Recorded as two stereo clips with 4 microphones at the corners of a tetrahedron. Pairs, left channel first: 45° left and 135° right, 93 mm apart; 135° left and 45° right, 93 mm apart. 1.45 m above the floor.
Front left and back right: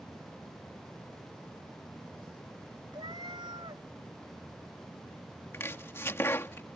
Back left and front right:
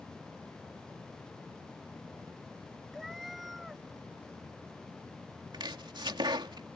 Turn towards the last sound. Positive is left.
turn(degrees=-15)